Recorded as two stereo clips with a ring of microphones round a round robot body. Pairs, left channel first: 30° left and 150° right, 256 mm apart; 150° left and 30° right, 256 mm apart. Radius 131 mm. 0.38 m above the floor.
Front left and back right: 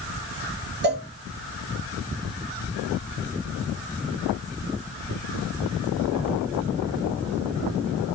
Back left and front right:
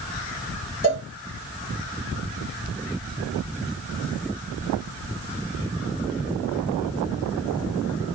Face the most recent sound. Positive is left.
turn(degrees=-95)